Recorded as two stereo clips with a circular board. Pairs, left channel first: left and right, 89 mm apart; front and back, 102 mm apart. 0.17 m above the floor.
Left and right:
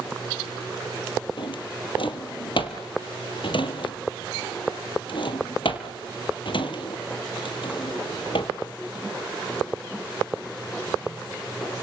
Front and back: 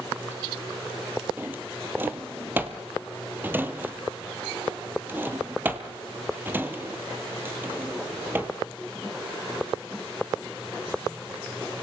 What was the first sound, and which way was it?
A drawer, 110° left.